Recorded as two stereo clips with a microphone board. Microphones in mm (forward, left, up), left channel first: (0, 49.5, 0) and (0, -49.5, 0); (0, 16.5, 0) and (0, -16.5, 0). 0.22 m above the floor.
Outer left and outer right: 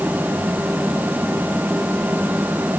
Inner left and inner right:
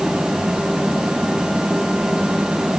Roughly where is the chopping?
No chopping in this recording.